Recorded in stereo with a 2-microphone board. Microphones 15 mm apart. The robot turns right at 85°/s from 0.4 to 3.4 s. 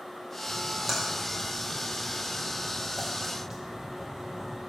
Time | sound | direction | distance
0.5 | a splash | 35° right (ahead or behind) | 1.8 m